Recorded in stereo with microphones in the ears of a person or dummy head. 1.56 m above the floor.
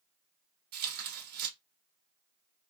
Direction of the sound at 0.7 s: 50° right (ahead or behind).